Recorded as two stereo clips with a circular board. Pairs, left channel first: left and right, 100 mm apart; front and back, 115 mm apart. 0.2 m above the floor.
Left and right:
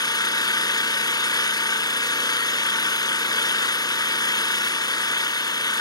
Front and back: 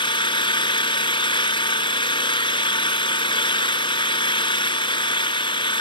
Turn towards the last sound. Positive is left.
turn(degrees=40)